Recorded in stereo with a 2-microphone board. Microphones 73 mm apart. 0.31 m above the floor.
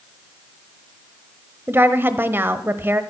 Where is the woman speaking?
35° right (ahead or behind), 1.0 m.